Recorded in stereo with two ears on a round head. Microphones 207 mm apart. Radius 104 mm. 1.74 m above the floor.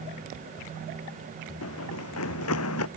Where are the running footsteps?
70° left (ahead or behind).